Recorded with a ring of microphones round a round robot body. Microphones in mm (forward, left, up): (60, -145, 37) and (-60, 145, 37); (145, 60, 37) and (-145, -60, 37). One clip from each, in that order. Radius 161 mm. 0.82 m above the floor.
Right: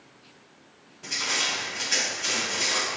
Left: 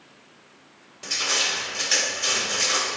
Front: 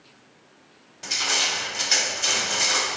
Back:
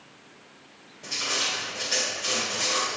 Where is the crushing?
70° left, 1.8 m.